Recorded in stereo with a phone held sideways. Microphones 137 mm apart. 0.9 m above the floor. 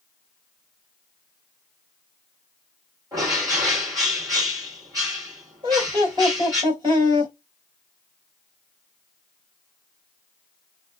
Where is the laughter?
40° right (ahead or behind), 3 m.